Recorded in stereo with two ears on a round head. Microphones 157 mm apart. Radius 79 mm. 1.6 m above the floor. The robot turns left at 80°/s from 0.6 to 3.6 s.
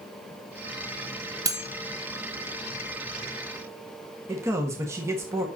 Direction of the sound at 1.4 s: 20° right (ahead or behind).